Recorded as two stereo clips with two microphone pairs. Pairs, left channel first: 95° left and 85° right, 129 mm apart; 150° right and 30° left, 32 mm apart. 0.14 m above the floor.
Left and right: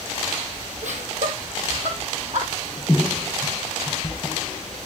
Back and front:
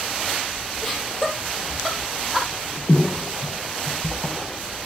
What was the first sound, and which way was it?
Laughter, 70° right.